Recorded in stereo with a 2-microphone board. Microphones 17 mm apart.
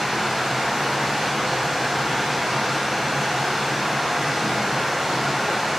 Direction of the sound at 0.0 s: 30° right (ahead or behind).